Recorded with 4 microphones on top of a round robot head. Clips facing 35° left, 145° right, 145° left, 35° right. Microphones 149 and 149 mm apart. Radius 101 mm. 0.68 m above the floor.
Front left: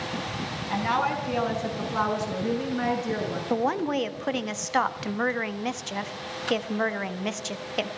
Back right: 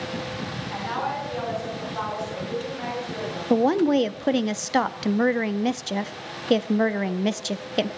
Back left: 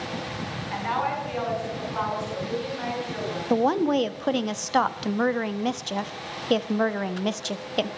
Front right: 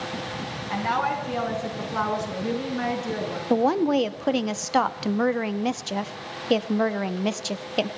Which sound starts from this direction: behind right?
A woman speaking, at 3.5 s.